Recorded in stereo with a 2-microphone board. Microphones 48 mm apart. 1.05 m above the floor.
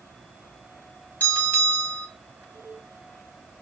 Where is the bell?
40° left (ahead or behind), 1.6 m.